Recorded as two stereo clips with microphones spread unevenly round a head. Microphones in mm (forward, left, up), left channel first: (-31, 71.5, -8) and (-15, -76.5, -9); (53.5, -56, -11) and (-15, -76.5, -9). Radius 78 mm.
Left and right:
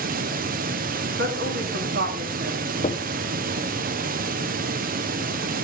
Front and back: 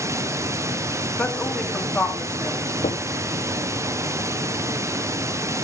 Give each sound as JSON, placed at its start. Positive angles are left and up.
{"t": 0.0, "sound": "running water", "azimuth_deg": -115, "distance_m": 0.9}
{"t": 1.2, "sound": "a woman speaking", "azimuth_deg": -60, "distance_m": 3.0}
{"t": 2.8, "sound": "knocking", "azimuth_deg": 35, "distance_m": 0.8}